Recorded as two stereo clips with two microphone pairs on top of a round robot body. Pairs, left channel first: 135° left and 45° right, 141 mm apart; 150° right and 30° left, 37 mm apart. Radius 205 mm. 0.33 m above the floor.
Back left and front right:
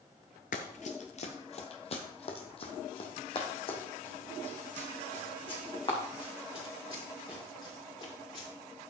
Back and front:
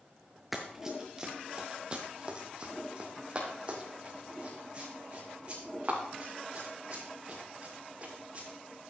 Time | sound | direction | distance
0.5 | running footsteps | 110° left | 0.5 m